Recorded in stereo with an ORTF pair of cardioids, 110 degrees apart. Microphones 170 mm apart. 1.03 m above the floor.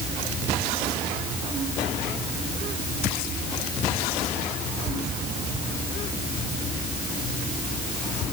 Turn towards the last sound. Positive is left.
No sound to turn to.